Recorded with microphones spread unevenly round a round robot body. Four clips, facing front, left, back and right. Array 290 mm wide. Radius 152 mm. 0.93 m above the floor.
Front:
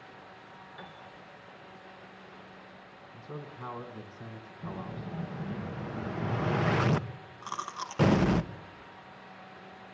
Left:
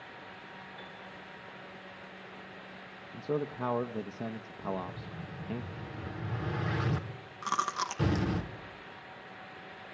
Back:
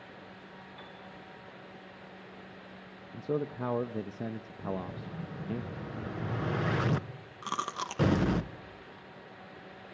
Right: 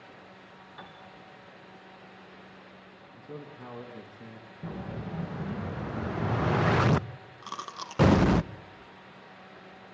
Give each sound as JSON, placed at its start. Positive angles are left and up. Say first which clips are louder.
{"t": 0.8, "sound": "a piano", "louder": "even, front 3 dB", "azimuth_deg": -55, "distance_m": 3.0}
{"t": 3.1, "sound": "a man speaking", "louder": "left 11 dB, back 11 dB", "azimuth_deg": 145, "distance_m": 0.8}
{"t": 4.6, "sound": "an explosion", "louder": "left 1 dB, back 2 dB", "azimuth_deg": -50, "distance_m": 0.8}
{"t": 7.4, "sound": "chewing", "louder": "left 8 dB, back 3 dB", "azimuth_deg": 150, "distance_m": 0.8}